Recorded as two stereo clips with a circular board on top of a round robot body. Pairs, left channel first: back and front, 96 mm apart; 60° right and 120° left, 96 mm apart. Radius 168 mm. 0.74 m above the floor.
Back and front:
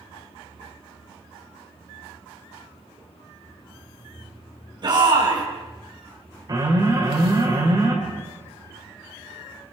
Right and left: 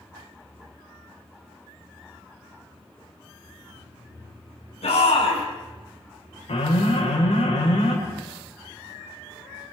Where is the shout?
45° right, 7.5 m.